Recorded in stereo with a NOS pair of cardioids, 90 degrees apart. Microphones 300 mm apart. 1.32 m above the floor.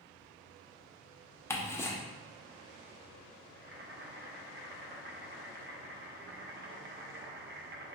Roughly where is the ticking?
Ahead.